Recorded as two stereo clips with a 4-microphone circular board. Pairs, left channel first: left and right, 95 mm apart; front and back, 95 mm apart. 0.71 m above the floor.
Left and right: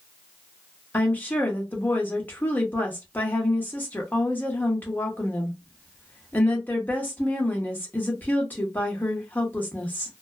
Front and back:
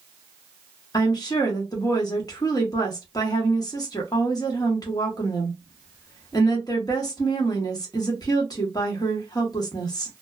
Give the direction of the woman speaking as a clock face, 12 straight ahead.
11 o'clock.